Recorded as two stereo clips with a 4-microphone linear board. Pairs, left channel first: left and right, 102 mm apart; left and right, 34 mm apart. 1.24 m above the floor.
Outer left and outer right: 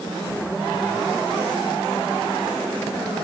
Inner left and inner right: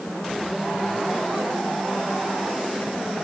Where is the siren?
I don't hear a siren.